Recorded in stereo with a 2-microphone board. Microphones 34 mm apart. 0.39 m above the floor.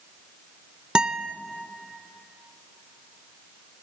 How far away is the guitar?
About 0.6 m.